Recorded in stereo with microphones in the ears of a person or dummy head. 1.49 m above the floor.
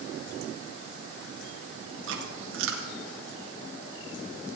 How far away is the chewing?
About 2.5 m.